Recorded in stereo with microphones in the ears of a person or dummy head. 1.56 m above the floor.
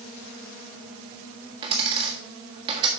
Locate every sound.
1.6 s a dropped coin: 30° right (ahead or behind), 1.3 m